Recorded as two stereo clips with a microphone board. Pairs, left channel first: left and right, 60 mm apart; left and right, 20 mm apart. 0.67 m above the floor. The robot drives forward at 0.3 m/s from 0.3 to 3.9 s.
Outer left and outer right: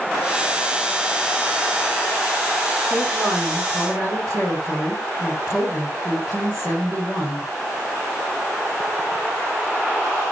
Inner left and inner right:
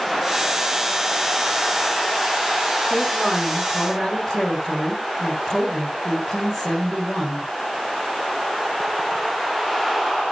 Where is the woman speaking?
15° left (ahead or behind), 7 m.